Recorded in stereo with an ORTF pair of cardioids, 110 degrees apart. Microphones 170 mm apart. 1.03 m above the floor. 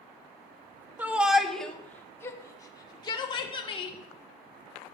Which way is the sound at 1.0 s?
10° right.